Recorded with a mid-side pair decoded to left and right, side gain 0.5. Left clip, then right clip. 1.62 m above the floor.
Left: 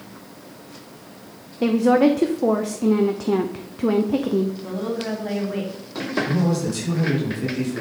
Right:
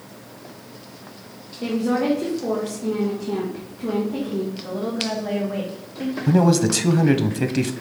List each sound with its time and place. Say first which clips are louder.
1.6 s a woman speaking: left 6 dB; 55° left, 0.8 m
4.6 s a woman speaking: right 1 dB; 5° left, 2.5 m
6.3 s a man speaking: right 5 dB; 65° right, 1.1 m